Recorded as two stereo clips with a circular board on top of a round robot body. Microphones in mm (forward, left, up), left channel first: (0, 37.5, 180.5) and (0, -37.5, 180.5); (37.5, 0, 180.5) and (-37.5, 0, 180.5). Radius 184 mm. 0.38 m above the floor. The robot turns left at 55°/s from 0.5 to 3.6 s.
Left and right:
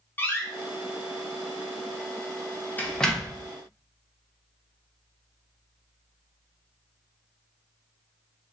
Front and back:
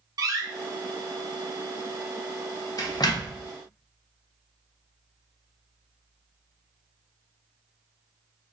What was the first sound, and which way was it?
A door slam, 150° left.